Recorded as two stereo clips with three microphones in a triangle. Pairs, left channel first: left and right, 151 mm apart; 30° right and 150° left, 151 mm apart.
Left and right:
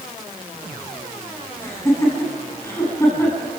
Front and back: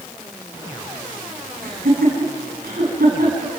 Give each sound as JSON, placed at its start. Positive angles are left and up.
{"t": 1.6, "sound": "laughter", "azimuth_deg": 160, "distance_m": 8.5}